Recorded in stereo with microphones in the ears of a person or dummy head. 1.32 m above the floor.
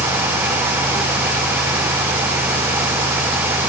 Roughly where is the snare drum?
No snare drum in this recording.